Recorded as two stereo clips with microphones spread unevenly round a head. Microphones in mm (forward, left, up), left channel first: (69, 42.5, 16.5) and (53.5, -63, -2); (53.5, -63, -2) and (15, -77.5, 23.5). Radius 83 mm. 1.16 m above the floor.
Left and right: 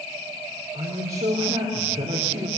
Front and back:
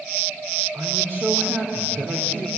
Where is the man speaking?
150° right, 3 m.